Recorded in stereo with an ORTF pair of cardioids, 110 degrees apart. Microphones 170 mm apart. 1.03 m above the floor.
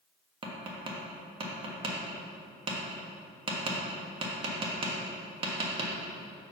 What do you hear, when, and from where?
0.4 s tapping: 35° right, 1.5 m